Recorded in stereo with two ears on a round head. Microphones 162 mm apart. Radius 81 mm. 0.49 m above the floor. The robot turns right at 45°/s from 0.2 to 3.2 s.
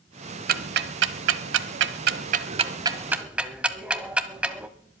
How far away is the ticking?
About 0.9 m.